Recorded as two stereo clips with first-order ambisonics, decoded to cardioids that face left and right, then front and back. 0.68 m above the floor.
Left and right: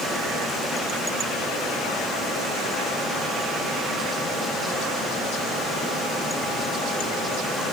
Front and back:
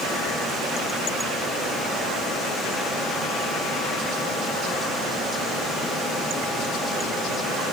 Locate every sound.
Only background noise.